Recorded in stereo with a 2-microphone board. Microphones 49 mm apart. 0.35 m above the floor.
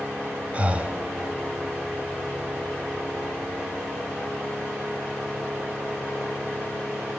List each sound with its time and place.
0.5 s breathing: 30° right (ahead or behind), 0.6 m